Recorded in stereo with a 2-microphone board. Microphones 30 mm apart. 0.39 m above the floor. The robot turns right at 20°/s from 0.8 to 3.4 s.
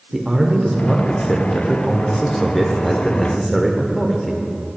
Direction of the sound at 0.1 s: 5° right (ahead or behind).